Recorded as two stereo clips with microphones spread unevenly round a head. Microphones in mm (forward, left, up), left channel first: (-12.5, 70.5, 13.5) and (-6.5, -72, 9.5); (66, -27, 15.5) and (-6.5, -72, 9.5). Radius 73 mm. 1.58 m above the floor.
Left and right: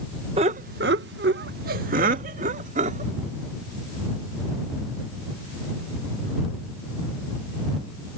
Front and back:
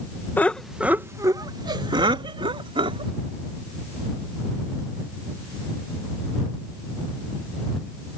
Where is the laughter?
35° right; by 3.1 s 130° right.